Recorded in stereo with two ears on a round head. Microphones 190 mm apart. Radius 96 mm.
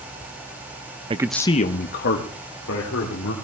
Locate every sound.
1.1 s a man speaking: 30° right (ahead or behind), 0.6 m; by 3.3 s 65° left (ahead or behind), 3 m